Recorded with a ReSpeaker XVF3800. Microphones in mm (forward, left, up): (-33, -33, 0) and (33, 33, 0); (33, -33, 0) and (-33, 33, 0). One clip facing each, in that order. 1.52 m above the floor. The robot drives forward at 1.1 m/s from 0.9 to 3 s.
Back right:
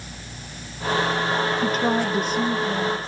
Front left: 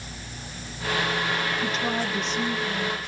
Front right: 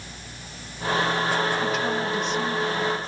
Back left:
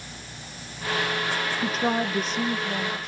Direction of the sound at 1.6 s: 175° right.